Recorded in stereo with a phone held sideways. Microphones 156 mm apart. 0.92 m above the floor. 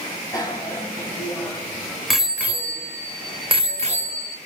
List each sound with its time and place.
0.3 s a bicycle bell: 25° left (ahead or behind), 3.5 m; by 4.4 s 55° right (ahead or behind), 2.5 m